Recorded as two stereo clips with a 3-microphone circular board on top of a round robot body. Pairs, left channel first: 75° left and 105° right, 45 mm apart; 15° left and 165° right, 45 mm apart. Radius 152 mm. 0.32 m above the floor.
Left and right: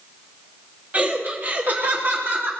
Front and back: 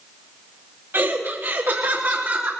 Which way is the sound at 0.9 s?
155° right.